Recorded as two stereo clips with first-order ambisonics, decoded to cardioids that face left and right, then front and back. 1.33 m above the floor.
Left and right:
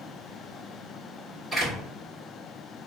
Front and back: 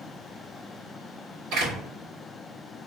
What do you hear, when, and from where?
1.5 s a door slam: 170° left, 2.5 m